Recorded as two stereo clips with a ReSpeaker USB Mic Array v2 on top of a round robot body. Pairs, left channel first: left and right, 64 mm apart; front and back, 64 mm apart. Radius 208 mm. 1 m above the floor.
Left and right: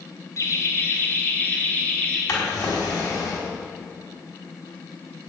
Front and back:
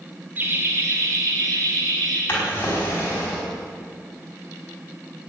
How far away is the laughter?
About 1.6 m.